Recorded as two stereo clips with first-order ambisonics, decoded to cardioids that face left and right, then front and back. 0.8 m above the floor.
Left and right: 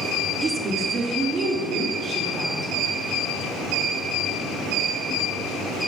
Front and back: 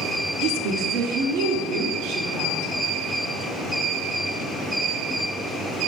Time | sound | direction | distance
0.4 | a woman speaking | 165° right | 0.9 m